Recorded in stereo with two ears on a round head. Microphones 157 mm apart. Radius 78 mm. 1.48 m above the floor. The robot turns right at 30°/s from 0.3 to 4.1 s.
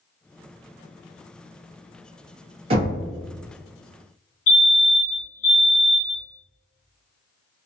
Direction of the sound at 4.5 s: 50° left (ahead or behind).